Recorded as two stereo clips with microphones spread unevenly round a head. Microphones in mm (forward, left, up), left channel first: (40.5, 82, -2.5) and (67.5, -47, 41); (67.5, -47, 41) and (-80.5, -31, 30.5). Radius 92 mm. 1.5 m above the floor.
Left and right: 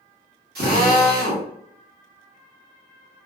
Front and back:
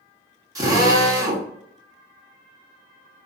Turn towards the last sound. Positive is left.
turn(degrees=-120)